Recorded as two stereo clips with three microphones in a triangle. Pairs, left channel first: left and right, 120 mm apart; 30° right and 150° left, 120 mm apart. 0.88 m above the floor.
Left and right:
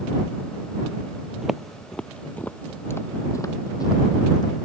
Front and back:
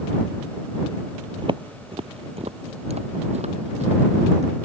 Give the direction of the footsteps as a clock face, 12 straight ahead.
6 o'clock.